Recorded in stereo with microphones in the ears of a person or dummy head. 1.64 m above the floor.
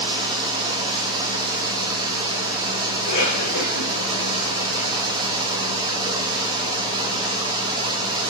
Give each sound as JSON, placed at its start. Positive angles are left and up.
{"t": 0.0, "sound": "running water", "side_deg": -25, "distance_m": 1.8}
{"t": 3.0, "sound": "a cough", "side_deg": 65, "distance_m": 4.0}